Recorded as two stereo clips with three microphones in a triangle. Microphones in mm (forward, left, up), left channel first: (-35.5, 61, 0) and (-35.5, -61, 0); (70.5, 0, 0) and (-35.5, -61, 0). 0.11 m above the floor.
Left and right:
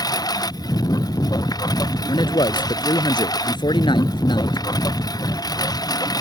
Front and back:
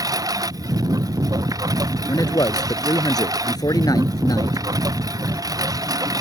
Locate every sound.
0.0 s a lawn mower: 150° left
2.1 s a man speaking: 70° left